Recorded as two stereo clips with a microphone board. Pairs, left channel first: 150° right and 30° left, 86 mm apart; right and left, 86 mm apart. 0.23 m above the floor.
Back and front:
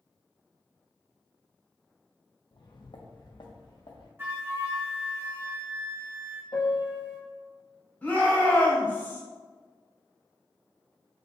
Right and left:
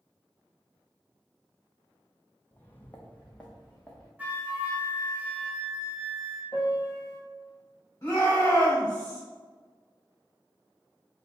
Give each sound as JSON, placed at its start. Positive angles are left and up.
{"t": 2.5, "sound": "footsteps", "azimuth_deg": -155, "distance_m": 0.5}
{"t": 4.2, "sound": "a flute", "azimuth_deg": 40, "distance_m": 1.0}
{"t": 6.5, "sound": "a piano", "azimuth_deg": -140, "distance_m": 1.3}
{"t": 8.0, "sound": "a shout", "azimuth_deg": -95, "distance_m": 1.4}